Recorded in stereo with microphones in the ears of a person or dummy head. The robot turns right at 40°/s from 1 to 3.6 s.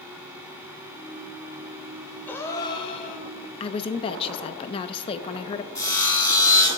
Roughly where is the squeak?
No squeak in this recording.